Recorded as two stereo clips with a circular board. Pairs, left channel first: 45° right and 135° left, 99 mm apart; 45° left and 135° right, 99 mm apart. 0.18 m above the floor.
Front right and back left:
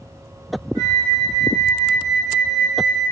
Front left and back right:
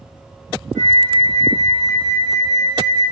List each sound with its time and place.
0.8 s a flute: 160° left, 1.7 m